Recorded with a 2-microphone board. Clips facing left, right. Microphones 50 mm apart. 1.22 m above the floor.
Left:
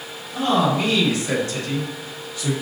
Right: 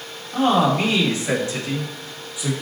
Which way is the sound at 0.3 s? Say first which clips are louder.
Right 2 dB; 35° right (ahead or behind).